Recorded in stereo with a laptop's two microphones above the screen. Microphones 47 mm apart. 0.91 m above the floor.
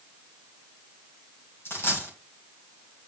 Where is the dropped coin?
60° left (ahead or behind), 2.5 m.